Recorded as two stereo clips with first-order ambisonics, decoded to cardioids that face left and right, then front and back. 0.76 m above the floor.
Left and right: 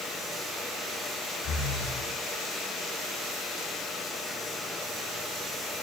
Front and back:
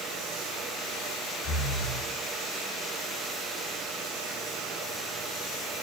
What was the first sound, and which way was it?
Breathing, 40° left.